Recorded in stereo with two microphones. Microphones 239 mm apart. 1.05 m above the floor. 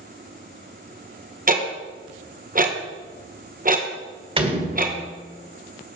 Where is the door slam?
25° right (ahead or behind), 2 m.